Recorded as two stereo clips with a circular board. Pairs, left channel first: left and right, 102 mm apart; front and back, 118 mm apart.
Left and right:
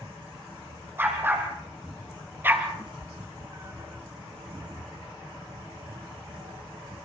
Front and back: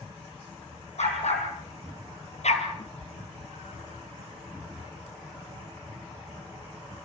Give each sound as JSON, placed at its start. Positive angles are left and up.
{"t": 1.0, "sound": "a dog barking", "azimuth_deg": -20, "distance_m": 5.0}
{"t": 2.8, "sound": "a cat meowing", "azimuth_deg": -25, "distance_m": 0.6}